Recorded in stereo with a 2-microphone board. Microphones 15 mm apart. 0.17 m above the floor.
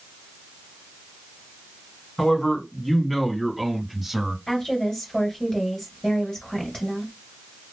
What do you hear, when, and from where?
2.2 s a man speaking: 40° left (ahead or behind), 1.7 m; by 4.4 s 25° right (ahead or behind), 1.4 m
4.5 s a woman speaking: 40° left (ahead or behind), 2 m